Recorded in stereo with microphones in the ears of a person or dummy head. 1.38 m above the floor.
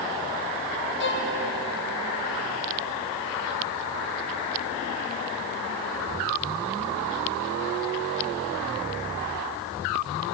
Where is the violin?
50° left (ahead or behind), 0.9 m.